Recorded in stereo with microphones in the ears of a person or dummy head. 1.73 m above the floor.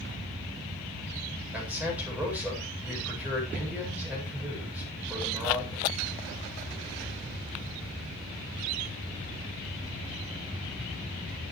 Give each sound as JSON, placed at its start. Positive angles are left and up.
{"t": 1.5, "sound": "a man speaking", "side_deg": -10, "distance_m": 8.0}